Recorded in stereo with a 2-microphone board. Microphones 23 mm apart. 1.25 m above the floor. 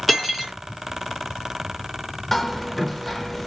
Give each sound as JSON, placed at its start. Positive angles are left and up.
{"t": 0.1, "sound": "cutlery clinking", "side_deg": 10, "distance_m": 1.1}
{"t": 2.3, "sound": "hammering", "side_deg": 10, "distance_m": 0.5}